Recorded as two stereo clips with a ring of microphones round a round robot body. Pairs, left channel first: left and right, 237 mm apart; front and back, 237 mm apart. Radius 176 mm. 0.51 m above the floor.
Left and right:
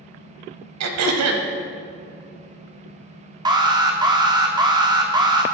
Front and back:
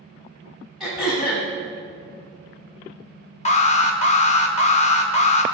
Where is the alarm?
30° right, 0.6 m.